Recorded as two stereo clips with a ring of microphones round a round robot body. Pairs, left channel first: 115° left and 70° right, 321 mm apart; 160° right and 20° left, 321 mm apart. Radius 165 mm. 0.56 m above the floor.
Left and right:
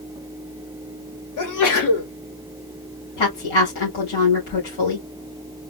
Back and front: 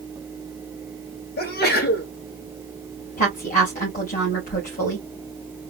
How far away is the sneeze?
About 2 m.